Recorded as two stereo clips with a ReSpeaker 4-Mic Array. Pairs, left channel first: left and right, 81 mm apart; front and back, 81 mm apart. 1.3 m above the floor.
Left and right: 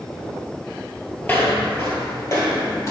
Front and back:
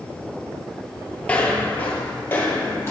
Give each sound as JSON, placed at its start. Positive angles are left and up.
{"t": 1.2, "sound": "footsteps", "azimuth_deg": 55, "distance_m": 1.4}